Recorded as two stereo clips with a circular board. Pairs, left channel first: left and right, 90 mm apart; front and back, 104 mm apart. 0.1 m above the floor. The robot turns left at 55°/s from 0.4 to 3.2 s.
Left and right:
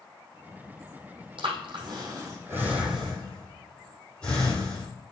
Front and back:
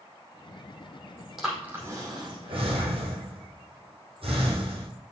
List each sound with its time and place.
1.4 s breathing: 95° right, 5 m; by 4.9 s 165° left, 5 m